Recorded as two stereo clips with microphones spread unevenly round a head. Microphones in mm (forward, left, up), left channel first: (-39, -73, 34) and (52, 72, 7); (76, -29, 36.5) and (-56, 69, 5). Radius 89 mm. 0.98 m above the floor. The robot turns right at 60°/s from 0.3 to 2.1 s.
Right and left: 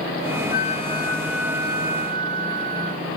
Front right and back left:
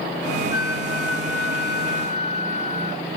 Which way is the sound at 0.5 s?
80° right.